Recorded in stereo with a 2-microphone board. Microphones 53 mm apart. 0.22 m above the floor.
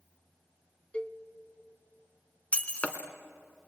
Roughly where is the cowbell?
Left.